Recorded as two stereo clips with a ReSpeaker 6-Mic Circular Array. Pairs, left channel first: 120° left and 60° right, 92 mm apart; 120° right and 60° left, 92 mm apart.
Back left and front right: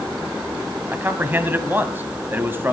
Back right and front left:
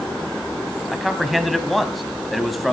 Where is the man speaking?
30° right, 1.1 m.